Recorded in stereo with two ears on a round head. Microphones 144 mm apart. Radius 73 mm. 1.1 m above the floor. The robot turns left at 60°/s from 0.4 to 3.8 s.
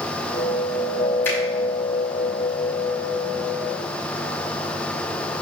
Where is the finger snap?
15° left (ahead or behind), 5 m; by 1.4 s 20° left (ahead or behind), 5 m.